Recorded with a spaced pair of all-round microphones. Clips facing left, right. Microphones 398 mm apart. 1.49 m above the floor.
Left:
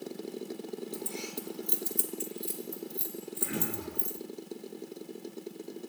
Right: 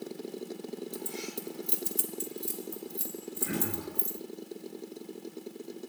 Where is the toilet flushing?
No toilet flushing in this recording.